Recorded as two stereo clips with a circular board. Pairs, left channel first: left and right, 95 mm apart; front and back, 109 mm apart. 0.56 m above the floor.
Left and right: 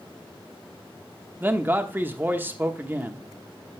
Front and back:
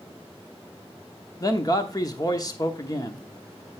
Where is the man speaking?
30° right, 0.9 m.